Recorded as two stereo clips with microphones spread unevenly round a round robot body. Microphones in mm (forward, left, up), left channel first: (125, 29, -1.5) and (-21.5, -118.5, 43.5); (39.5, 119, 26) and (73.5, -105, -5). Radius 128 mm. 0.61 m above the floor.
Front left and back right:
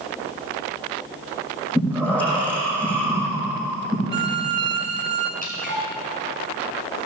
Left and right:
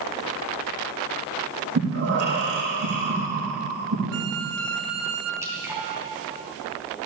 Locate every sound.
1.8 s breathing: 40° right, 7 m
4.1 s a violin: 95° right, 1.6 m
5.4 s dripping: 5° right, 5 m